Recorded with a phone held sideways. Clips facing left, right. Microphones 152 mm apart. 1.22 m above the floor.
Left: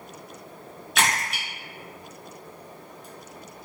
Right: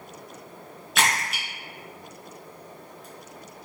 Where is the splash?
Centre (ahead or behind), 0.9 m.